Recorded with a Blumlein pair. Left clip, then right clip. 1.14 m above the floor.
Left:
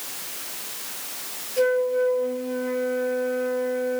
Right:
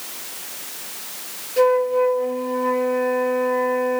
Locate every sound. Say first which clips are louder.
1.6 s a flute: right 4 dB; 60° right, 2.5 m